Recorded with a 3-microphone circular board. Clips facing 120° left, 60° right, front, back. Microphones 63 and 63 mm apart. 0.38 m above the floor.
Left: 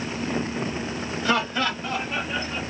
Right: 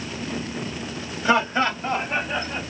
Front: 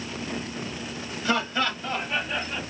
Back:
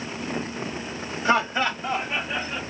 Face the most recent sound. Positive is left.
turn(degrees=-90)